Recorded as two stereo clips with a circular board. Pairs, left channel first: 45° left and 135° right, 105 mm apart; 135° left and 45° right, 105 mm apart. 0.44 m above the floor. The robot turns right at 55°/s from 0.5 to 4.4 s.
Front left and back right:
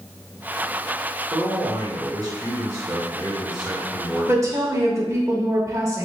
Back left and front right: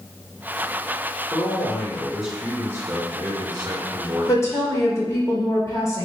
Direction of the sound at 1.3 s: 170° right.